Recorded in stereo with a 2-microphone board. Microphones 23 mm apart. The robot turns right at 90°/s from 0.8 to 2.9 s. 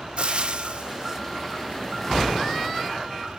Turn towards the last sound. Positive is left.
turn(degrees=140)